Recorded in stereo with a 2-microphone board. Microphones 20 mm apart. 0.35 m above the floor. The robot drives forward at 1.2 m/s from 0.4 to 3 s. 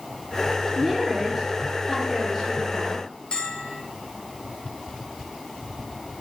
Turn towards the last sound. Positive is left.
turn(degrees=50)  # may be behind; listen again after turning